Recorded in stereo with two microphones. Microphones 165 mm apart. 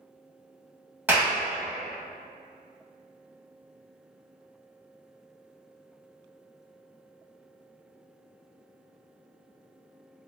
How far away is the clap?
About 0.8 m.